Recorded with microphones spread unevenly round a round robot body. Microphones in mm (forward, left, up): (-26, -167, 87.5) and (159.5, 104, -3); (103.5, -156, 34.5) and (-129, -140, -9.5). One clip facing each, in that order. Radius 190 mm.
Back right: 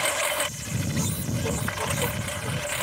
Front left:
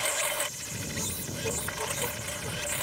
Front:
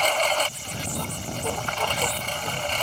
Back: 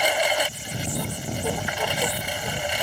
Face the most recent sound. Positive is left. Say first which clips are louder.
# back right 5 dB, back 1 dB
turn(degrees=-105)